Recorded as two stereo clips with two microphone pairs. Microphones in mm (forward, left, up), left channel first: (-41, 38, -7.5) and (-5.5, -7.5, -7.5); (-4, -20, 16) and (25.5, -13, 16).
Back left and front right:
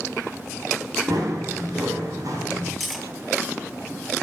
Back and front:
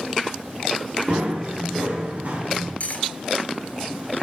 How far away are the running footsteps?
About 3.5 m.